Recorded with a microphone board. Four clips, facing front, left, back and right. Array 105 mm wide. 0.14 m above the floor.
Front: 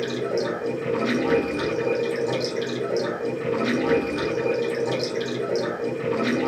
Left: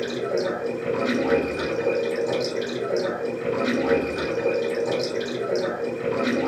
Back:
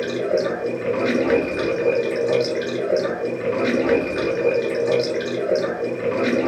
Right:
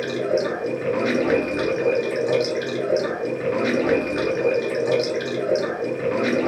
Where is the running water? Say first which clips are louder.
Right 3 dB, back 4 dB; 135° right, 1.9 m.